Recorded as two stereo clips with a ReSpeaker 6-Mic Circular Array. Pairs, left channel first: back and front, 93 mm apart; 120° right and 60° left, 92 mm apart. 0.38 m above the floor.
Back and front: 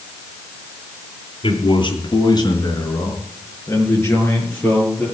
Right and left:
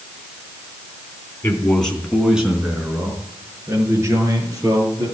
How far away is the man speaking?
About 3 m.